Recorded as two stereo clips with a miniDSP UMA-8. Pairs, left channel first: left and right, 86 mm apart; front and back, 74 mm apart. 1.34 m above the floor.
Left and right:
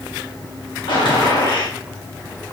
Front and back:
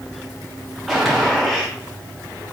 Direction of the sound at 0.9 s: 85° left.